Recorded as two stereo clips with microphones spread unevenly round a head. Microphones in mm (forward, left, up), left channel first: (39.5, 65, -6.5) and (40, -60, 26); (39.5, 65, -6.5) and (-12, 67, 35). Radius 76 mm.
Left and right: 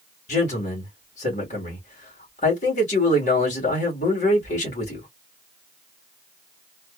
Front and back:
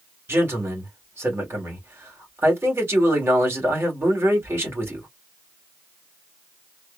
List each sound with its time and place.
0.3 s a man speaking: 135° left, 2 m